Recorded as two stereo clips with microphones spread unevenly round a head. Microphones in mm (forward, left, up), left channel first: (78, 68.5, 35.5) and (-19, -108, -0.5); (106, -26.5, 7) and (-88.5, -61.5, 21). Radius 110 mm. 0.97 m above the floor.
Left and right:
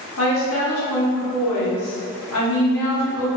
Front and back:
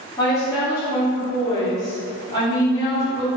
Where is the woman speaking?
80° left, 1.1 m.